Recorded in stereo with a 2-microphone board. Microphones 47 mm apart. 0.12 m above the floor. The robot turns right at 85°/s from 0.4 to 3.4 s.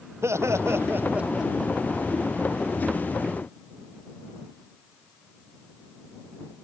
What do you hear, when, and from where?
0.2 s laughter: 95° right; by 1.7 s 15° left